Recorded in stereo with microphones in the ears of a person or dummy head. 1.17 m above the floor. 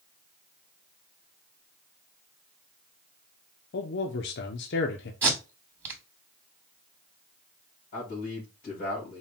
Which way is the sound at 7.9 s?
50° left (ahead or behind).